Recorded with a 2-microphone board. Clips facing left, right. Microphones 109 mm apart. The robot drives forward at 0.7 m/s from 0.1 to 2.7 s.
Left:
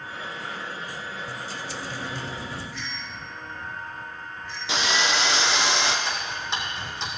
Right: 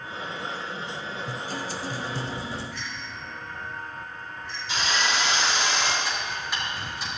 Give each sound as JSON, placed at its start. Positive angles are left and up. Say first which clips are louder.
{"t": 1.3, "sound": "a guitar", "louder": "right 2 dB", "side_deg": -50, "distance_m": 0.9}
{"t": 2.7, "sound": "a bicycle bell", "louder": "even", "side_deg": -80, "distance_m": 5.0}
{"t": 4.7, "sound": "sawing", "louder": "left 2 dB", "side_deg": 85, "distance_m": 2.0}
{"t": 6.0, "sound": "ticking", "louder": "left 1 dB", "side_deg": 25, "distance_m": 4.0}